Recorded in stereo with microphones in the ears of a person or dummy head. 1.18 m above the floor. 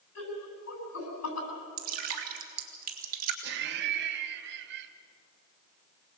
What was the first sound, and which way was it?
Laughter, 85° left.